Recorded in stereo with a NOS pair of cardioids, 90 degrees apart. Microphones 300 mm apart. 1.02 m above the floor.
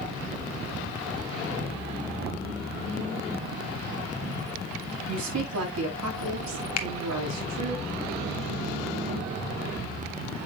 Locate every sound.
5.1 s a woman speaking: 60° right, 5.5 m
6.8 s a finger snap: 60° left, 1.4 m